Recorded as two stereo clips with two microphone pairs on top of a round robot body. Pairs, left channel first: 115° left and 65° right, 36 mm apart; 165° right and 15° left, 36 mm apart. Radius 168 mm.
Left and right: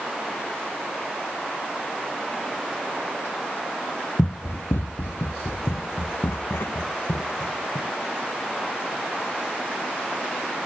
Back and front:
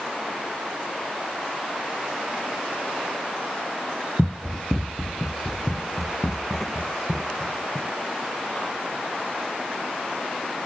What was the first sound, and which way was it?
Running footsteps, 120° left.